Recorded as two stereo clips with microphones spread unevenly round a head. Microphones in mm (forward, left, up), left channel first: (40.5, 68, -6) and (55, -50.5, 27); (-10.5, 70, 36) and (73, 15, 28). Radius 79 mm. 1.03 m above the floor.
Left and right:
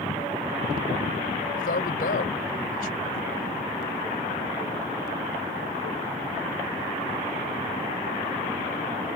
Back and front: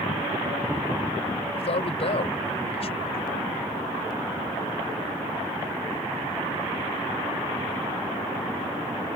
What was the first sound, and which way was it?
A man speaking, 125° left.